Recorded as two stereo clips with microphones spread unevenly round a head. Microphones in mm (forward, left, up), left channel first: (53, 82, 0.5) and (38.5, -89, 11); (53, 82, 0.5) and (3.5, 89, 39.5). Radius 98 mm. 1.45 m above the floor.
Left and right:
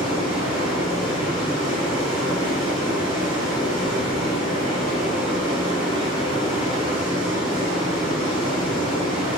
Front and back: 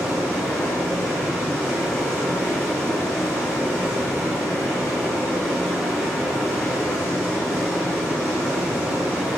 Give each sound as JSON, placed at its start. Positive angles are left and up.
{"t": 0.0, "sound": "running water", "azimuth_deg": -130, "distance_m": 1.3}